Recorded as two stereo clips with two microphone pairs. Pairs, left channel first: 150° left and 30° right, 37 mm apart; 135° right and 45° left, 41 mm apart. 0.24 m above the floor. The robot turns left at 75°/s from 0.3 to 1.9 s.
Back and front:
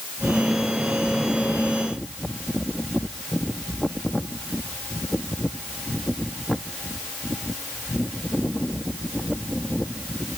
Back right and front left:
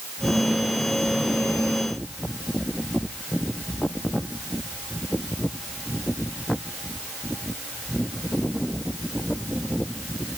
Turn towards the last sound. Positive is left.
No sound to turn to.